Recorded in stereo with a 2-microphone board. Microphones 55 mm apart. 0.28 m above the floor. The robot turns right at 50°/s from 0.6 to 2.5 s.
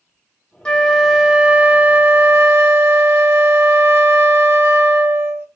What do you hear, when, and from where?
0.7 s a flute: 160° left, 0.7 m; by 5.5 s 105° right, 0.7 m